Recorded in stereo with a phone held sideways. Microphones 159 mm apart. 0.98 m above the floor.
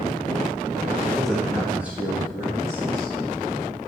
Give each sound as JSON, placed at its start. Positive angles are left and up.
{"t": 1.0, "sound": "a man speaking", "side_deg": 5, "distance_m": 1.5}